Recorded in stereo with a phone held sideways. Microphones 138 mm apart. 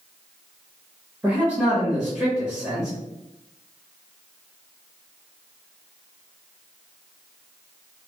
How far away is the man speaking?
About 0.9 m.